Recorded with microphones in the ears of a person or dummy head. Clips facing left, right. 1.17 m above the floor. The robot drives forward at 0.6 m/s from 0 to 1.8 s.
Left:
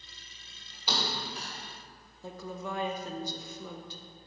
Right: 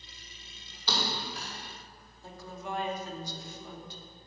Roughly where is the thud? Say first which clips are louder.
Right 1 dB; centre.